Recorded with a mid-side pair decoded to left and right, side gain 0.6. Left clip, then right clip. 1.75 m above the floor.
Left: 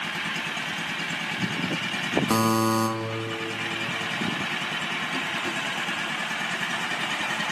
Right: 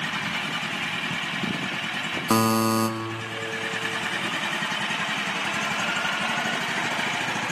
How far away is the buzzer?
About 3 m.